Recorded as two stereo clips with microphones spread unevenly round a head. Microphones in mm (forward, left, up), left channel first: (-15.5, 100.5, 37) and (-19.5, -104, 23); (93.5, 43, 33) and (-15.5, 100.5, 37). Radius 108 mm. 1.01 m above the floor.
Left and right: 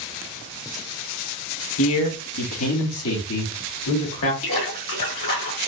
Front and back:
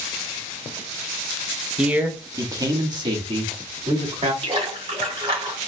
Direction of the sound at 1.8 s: 70° left.